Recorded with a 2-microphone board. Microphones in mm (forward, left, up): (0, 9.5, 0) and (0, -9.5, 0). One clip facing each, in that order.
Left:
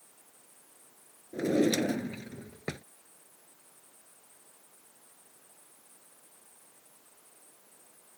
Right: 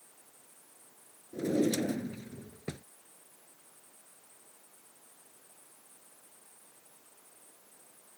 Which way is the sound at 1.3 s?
65° left (ahead or behind).